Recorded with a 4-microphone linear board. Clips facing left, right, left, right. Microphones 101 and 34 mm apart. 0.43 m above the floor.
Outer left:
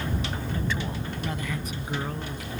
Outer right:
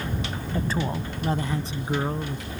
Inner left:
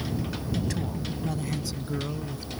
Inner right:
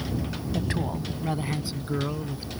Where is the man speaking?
40° right (ahead or behind); by 2.5 s 25° right (ahead or behind).